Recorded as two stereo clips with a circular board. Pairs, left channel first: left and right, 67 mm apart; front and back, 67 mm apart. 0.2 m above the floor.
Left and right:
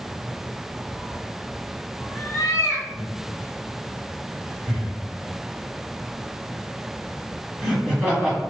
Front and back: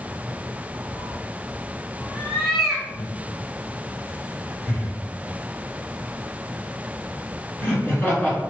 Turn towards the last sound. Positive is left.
turn(degrees=-20)